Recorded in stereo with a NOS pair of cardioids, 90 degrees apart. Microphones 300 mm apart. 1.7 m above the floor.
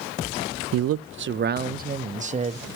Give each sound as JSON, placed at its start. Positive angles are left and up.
{"t": 0.7, "sound": "a man speaking", "azimuth_deg": -55, "distance_m": 0.6}